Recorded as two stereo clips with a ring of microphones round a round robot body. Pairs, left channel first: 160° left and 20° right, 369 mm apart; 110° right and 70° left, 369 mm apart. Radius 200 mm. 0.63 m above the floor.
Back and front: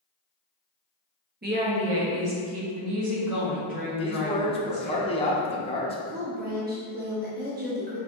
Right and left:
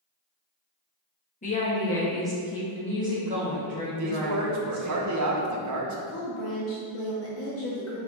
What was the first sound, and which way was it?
A woman speaking, 60° right.